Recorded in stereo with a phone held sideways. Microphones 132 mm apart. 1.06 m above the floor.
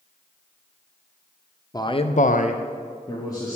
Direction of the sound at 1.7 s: 25° left (ahead or behind).